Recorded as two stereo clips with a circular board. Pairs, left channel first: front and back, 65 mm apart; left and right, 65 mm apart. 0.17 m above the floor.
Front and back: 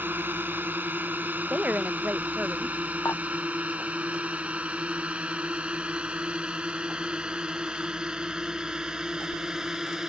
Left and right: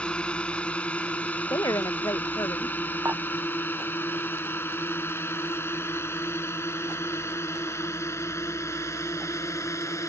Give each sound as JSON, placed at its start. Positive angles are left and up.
{"t": 0.0, "sound": "a drone", "azimuth_deg": 150}
{"t": 1.5, "sound": "a woman speaking", "azimuth_deg": 110}
{"t": 3.0, "sound": "dishes clattering", "azimuth_deg": -45}